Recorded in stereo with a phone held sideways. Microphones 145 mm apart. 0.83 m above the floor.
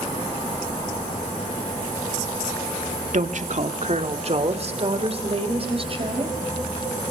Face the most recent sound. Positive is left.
turn(degrees=-40)  # may be behind; listen again after turning